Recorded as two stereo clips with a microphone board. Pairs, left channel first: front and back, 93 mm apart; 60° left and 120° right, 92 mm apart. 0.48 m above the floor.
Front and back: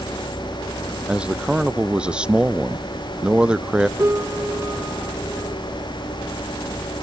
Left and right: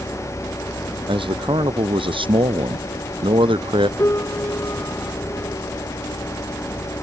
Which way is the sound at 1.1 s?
100° right.